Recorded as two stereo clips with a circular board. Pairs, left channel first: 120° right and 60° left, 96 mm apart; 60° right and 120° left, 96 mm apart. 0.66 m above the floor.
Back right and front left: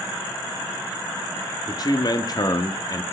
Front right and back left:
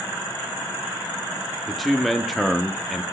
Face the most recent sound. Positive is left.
turn(degrees=-150)